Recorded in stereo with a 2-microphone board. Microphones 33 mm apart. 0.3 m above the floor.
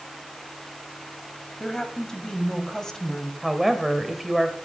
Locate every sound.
1.6 s a woman speaking: 15° left (ahead or behind), 2 m
3.4 s a woman speaking: centre (ahead or behind), 1.5 m